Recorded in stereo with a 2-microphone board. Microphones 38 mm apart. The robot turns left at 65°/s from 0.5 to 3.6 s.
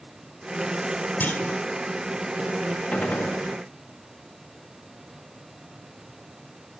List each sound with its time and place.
1.2 s a clunk: 50° left (ahead or behind), 2.5 m; by 1.6 s 75° left (ahead or behind), 2.5 m
2.9 s a gunshot: 140° left, 1.3 m; by 3.4 s 110° left, 1.3 m